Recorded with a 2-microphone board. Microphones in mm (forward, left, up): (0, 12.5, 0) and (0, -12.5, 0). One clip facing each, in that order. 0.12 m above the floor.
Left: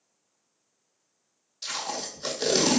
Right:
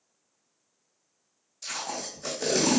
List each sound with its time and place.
1.6 s tape being pulled: 50° left (ahead or behind), 1.1 m